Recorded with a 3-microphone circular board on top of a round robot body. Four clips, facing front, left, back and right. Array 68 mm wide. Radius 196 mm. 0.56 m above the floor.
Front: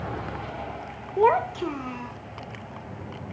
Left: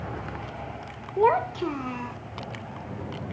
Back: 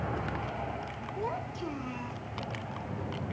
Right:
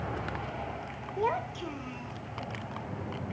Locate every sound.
1.2 s a child speaking: 35° left; by 2.2 s 75° left